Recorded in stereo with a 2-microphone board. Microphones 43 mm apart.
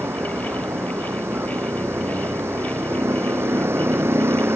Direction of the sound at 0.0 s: 75° right (ahead or behind).